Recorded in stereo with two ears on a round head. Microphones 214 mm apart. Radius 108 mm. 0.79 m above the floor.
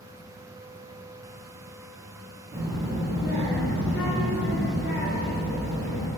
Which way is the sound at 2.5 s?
20° right (ahead or behind).